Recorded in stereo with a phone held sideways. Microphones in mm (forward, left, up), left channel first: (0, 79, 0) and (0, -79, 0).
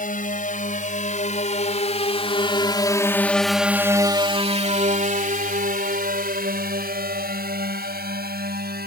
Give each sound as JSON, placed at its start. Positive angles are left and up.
{"t": 0.0, "sound": "a drone", "side_deg": 60}